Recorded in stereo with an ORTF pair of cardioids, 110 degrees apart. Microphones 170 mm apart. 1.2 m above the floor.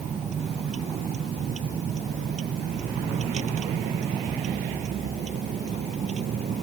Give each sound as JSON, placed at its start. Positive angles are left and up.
{"t": 0.0, "sound": "a vehicle", "azimuth_deg": -45}